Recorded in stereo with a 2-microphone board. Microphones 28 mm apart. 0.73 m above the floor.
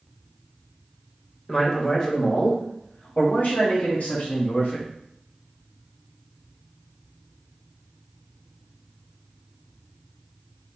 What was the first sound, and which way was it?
A man speaking, 20° left (ahead or behind).